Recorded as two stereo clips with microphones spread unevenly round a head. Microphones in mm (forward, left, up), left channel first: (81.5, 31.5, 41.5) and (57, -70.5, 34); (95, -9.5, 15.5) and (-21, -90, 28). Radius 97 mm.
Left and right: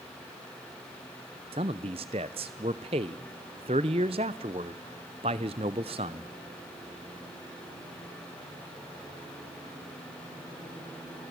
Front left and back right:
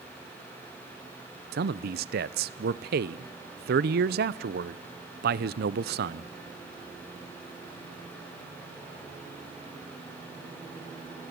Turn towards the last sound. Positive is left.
turn(degrees=-155)